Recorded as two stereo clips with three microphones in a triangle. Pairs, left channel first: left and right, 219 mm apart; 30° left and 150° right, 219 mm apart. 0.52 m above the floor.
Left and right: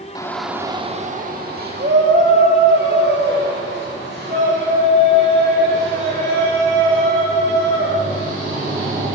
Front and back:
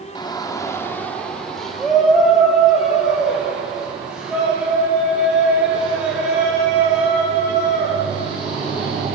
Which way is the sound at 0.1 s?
60° left.